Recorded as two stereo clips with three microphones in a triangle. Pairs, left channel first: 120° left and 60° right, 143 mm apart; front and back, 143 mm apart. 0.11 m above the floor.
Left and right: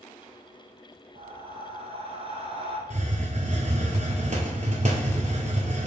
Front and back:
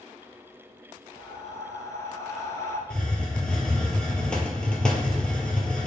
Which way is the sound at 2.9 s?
85° right.